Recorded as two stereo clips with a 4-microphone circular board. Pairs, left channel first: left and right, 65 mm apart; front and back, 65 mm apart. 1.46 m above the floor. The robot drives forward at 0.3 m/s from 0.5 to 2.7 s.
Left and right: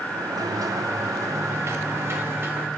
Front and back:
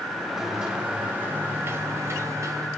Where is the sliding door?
100° right, 0.5 m; by 2.7 s 145° right, 0.9 m.